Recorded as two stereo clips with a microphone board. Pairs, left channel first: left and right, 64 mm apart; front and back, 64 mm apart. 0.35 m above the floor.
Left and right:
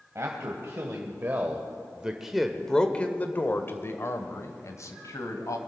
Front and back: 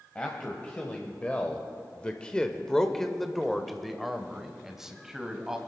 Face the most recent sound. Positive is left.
turn(degrees=100)